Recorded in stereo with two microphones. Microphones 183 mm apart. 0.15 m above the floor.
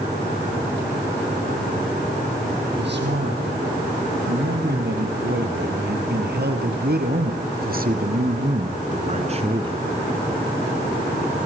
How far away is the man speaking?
About 6 m.